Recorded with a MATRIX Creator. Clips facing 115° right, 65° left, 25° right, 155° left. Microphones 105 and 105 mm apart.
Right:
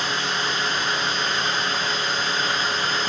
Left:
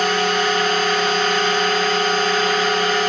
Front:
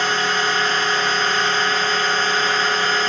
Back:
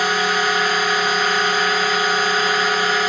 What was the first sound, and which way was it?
A drone, 80° left.